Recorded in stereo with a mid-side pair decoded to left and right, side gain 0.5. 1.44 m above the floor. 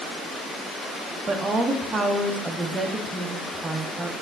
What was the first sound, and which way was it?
A woman speaking, 20° right.